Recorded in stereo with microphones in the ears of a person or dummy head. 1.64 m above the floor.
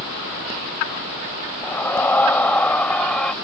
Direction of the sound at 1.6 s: 10° left (ahead or behind).